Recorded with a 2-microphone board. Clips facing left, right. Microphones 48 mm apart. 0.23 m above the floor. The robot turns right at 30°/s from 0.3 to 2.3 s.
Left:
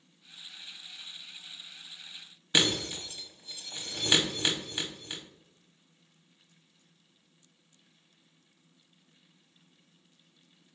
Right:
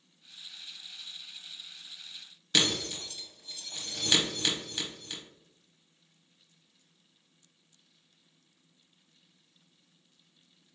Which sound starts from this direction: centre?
Breaking glass, at 2.5 s.